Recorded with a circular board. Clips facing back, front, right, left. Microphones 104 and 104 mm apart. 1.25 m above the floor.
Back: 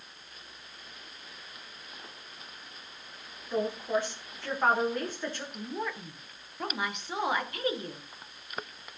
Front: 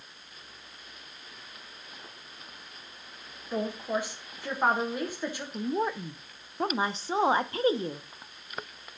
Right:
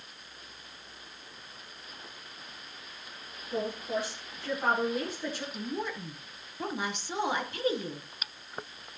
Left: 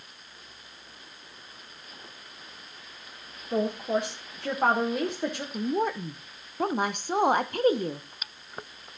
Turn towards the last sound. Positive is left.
turn(degrees=55)